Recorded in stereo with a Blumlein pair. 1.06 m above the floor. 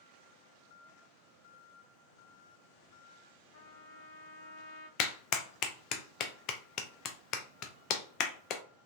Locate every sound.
3.5 s a trumpet: 50° left, 0.6 m
5.0 s a clap: 35° left, 0.5 m